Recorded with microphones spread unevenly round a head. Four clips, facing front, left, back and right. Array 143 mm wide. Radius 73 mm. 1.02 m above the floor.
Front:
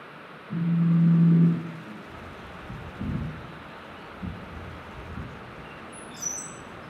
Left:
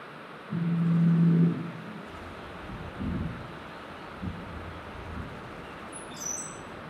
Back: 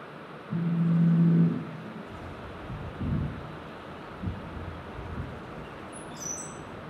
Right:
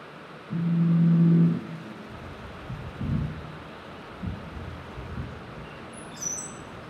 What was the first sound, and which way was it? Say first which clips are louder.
A phone buzzing: right 3 dB, front 3 dB; 75° right.